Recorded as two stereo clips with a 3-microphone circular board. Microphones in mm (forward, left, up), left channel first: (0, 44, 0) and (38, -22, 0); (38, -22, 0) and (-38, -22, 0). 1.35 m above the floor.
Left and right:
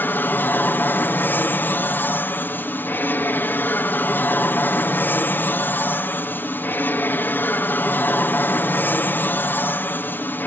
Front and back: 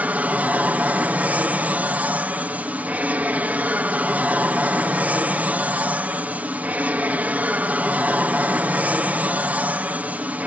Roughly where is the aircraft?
Behind left.